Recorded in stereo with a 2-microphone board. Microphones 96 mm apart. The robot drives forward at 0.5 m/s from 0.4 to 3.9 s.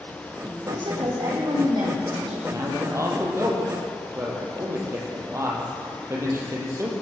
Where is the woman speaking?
55° right (ahead or behind), 6.5 m; by 2.4 s 50° right (ahead or behind), 7 m.